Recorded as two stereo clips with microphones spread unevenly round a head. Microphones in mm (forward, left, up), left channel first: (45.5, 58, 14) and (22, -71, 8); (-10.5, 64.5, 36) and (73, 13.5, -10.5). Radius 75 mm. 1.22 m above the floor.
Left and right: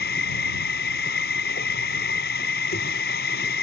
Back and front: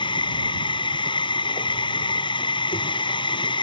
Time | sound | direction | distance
0.0 | a machine running | 110° left | ?